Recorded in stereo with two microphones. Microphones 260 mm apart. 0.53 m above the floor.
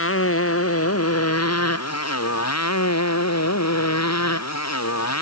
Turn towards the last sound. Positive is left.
turn(degrees=80)